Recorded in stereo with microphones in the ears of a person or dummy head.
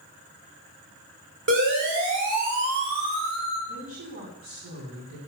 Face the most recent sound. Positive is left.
turn(degrees=-40)  # may be behind; listen again after turning